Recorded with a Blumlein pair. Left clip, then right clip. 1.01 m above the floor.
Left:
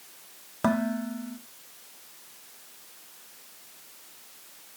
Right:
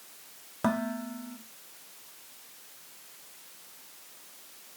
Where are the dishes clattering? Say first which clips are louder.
Left 3 dB; 5° left, 1.4 m.